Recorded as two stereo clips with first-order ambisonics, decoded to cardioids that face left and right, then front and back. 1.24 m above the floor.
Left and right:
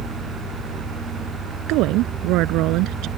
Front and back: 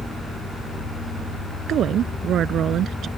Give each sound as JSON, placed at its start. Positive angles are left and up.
{"t": 1.7, "sound": "a woman speaking", "azimuth_deg": -125}